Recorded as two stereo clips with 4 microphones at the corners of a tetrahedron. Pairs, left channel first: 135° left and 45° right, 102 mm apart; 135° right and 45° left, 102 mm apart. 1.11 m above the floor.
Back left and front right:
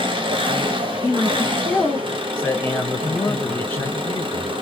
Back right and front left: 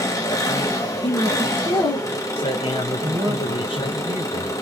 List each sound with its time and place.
0.0 s an engine running: 80° right, 1.1 m
1.0 s a man speaking: 155° right, 1.3 m
3.0 s a woman speaking: 80° left, 0.8 m